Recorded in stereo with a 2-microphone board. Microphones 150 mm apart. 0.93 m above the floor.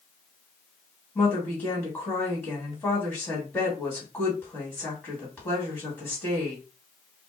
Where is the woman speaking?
15° left (ahead or behind), 1.7 m.